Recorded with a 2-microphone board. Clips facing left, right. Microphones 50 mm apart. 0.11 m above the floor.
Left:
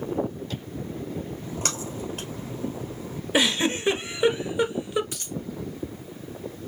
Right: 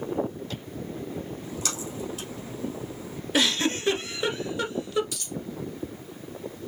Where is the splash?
50° left (ahead or behind), 1.9 m.